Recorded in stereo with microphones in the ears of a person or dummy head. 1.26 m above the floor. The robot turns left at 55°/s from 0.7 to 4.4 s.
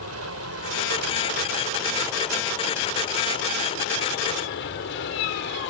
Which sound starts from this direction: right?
An aircraft, at 0.0 s.